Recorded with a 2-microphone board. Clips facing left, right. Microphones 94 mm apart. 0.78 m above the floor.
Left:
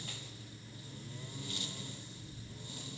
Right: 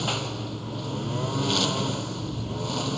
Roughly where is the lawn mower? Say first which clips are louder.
Right 20 dB; right.